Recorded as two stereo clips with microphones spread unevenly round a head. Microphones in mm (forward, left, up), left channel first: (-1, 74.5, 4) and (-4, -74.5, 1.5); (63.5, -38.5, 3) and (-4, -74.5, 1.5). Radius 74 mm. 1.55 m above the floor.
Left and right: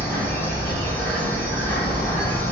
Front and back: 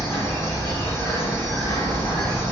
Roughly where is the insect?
Ahead.